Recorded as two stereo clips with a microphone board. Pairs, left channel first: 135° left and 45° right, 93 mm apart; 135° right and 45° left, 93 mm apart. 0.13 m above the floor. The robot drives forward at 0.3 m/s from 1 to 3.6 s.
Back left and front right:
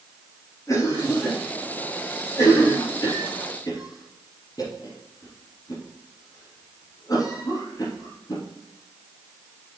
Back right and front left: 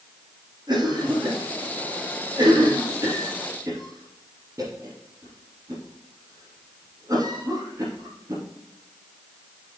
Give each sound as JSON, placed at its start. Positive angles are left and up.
{"t": 0.7, "sound": "a cough", "azimuth_deg": 85, "distance_m": 3.5}